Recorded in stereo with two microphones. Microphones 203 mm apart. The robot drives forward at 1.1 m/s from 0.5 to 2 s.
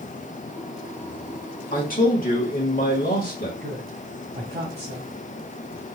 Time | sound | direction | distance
1.7 | a man speaking | 45° left (ahead or behind) | 1.3 m
3.6 | a woman speaking | 65° right (ahead or behind) | 2 m